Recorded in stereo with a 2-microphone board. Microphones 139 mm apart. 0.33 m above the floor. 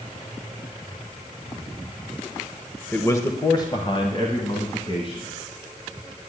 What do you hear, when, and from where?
2.9 s a man speaking: 15° left (ahead or behind), 0.9 m; by 5.3 s 40° left (ahead or behind), 3 m